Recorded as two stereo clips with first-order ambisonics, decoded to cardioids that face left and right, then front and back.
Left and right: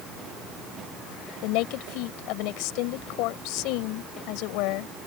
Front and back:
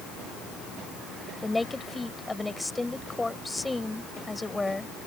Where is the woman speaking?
85° left.